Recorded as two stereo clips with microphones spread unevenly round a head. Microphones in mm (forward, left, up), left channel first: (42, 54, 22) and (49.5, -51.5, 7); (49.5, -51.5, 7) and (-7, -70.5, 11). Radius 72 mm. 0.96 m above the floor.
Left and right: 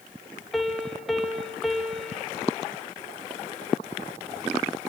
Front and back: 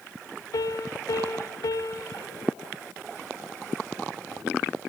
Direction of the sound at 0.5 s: 5° left.